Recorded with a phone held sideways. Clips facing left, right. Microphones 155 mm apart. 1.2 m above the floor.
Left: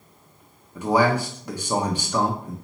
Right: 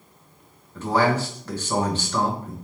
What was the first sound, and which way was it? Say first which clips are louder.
A man speaking: left 1 dB; 15° left (ahead or behind).